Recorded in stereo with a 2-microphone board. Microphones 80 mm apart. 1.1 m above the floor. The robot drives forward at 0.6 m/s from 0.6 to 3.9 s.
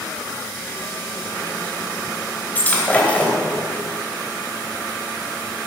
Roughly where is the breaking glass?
Left.